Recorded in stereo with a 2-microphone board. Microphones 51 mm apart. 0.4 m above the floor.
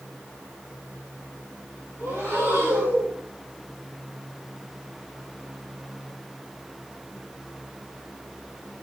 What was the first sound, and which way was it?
Breathing, 65° right (ahead or behind).